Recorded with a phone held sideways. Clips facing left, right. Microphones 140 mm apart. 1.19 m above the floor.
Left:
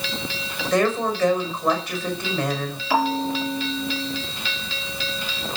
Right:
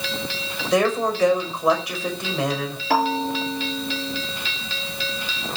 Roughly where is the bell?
Right.